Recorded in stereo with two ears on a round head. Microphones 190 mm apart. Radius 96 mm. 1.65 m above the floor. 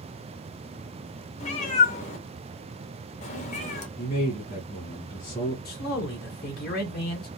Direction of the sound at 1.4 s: 35° left (ahead or behind).